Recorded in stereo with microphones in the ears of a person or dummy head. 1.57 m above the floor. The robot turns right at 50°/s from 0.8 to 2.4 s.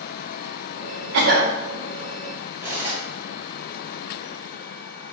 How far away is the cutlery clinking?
About 1.4 m.